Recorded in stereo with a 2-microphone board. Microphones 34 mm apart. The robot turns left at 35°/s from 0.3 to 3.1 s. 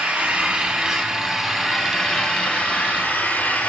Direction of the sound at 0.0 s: 135° right.